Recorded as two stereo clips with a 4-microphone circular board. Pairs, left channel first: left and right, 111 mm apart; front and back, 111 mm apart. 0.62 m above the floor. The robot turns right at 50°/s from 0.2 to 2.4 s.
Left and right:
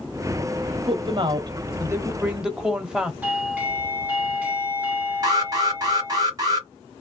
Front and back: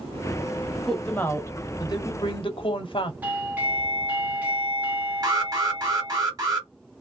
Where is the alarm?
135° right, 1.4 m.